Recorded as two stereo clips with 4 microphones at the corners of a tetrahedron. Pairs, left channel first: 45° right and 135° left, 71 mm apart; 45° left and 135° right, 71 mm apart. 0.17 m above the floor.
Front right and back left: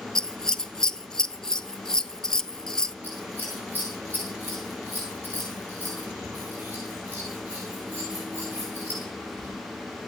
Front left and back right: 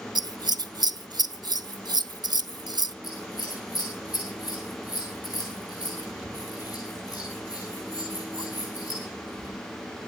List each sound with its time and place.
0.1 s scissors: 125° right, 0.7 m
3.0 s scissors: 75° left, 7.5 m